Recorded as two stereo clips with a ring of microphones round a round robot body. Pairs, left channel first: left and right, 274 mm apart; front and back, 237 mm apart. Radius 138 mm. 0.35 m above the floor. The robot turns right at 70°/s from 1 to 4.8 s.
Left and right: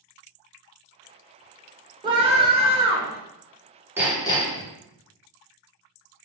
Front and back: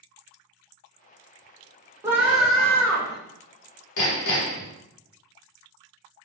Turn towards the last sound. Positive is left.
turn(degrees=50)